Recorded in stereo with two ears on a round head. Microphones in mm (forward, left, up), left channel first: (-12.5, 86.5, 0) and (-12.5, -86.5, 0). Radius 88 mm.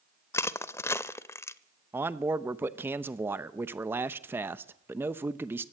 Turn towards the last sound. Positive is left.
turn(degrees=-10)  # may be behind; listen again after turning